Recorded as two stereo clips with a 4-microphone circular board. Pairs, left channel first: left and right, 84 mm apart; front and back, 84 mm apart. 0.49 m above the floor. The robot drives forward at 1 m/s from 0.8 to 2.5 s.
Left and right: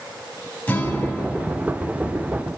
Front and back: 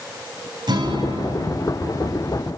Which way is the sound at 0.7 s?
160° left.